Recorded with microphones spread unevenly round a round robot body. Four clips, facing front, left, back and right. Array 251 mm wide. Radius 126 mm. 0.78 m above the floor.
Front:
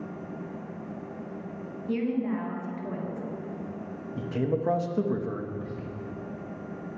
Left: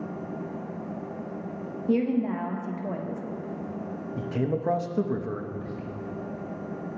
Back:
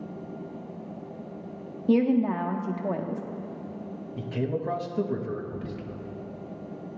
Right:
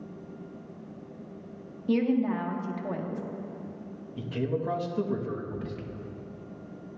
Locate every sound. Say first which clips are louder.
1.9 s a woman speaking: even, back 6 dB; 170° left, 1.2 m
4.2 s a man speaking: left 2 dB, front 2 dB; 60° left, 0.8 m
5.5 s whispering: left 1 dB, even; 125° right, 0.9 m